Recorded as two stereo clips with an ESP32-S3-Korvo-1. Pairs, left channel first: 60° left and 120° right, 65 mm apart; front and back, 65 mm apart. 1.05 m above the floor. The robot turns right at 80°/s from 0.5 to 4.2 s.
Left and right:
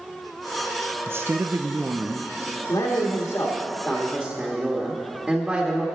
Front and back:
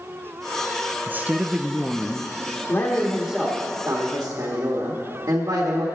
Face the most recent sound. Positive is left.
turn(degrees=150)